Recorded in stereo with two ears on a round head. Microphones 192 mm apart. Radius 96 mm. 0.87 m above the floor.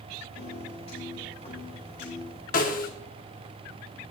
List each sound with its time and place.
0.3 s a piano: 30° left (ahead or behind), 4 m
2.5 s a snare drum: 40° left (ahead or behind), 1.7 m